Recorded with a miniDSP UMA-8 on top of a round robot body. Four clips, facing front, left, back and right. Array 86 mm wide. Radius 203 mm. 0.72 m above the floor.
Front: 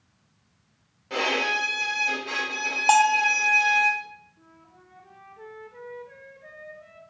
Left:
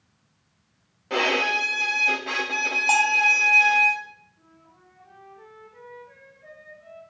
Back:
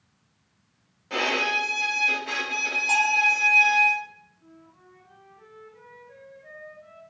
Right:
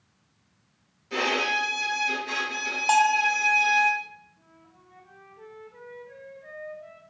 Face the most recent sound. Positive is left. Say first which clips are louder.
# left 1 dB, back 1 dB
turn(degrees=-5)